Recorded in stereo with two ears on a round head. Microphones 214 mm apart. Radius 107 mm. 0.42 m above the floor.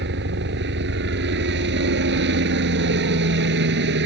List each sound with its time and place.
0.0 s a helicopter: 50° right (ahead or behind)